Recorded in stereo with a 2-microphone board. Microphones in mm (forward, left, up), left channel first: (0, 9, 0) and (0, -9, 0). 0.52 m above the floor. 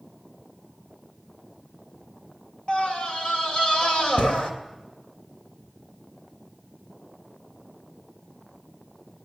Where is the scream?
60° left (ahead or behind), 3 m.